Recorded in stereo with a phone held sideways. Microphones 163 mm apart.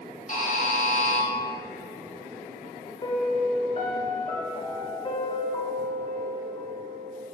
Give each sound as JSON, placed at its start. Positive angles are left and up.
{"t": 0.3, "sound": "a buzzer", "side_deg": 50, "distance_m": 2.0}
{"t": 3.0, "sound": "a piano", "side_deg": 40, "distance_m": 1.3}